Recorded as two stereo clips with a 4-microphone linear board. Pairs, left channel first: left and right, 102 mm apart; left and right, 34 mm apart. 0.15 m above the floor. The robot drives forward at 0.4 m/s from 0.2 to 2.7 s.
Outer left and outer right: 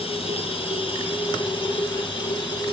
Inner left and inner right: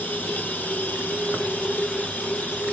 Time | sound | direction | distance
0.0 | running water | 65° left (ahead or behind) | 1.9 m